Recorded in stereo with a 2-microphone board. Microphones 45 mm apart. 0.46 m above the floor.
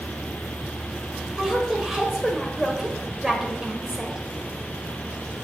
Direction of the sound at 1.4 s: 10° right (ahead or behind).